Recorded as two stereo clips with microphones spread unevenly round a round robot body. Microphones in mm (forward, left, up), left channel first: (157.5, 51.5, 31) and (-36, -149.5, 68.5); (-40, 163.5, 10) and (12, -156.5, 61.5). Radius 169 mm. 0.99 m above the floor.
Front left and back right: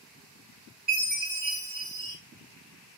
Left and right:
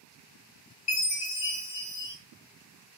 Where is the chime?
145° left, 1.3 m.